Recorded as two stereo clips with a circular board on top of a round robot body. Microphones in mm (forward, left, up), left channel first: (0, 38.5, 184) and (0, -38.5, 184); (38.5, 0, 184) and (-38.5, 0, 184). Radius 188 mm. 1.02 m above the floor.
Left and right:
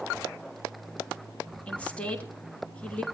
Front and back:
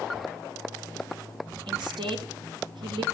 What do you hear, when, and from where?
1.7 s a woman speaking: 165° left, 3 m